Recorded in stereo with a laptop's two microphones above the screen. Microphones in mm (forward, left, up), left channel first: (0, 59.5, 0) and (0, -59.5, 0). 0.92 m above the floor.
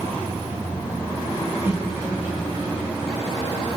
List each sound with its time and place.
1.6 s laughter: 20° right (ahead or behind), 5 m